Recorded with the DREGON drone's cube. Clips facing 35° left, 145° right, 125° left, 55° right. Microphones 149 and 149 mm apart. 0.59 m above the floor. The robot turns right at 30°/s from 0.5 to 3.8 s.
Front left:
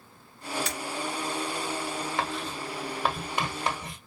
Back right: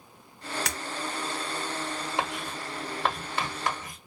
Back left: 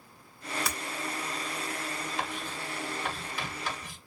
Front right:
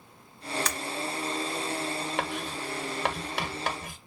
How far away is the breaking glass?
About 1.3 m.